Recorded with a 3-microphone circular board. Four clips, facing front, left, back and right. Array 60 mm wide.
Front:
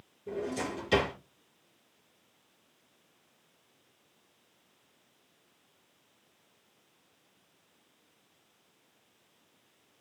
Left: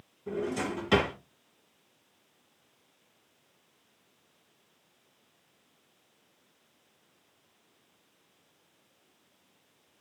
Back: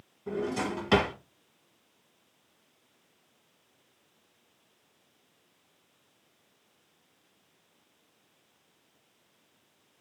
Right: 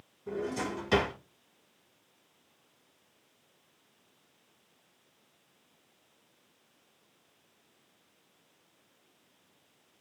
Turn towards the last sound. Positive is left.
turn(degrees=170)